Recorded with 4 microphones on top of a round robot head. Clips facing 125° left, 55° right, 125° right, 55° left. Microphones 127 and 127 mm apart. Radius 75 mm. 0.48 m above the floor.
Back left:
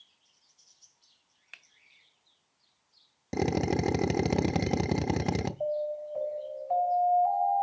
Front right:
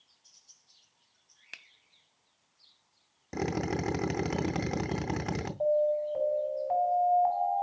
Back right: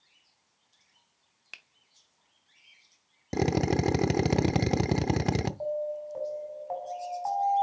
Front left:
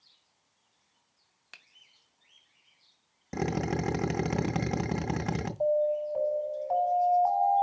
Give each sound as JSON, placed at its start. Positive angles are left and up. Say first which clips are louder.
{"t": 1.5, "sound": "a finger snap", "louder": "front right 3 dB, back right 2 dB", "azimuth_deg": -50, "distance_m": 0.7}
{"t": 3.3, "sound": "a drill", "louder": "back left 4 dB, back right 4 dB", "azimuth_deg": 180, "distance_m": 0.5}
{"t": 5.6, "sound": "an alarm", "louder": "front right 9 dB, front left 6 dB", "azimuth_deg": -40, "distance_m": 5.0}